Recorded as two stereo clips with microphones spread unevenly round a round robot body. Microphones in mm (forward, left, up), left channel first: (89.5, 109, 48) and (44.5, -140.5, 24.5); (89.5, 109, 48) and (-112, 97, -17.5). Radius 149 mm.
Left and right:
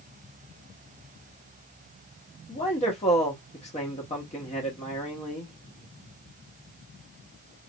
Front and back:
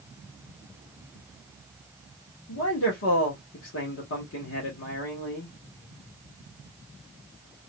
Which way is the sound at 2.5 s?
15° left.